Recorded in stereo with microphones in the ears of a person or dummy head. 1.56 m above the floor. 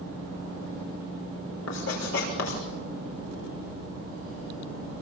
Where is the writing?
75° left (ahead or behind), 6 m.